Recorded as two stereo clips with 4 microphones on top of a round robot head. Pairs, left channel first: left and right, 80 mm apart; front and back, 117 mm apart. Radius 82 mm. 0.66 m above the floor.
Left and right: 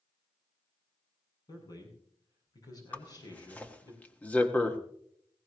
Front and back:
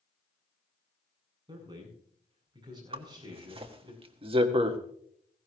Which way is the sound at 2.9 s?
155° left.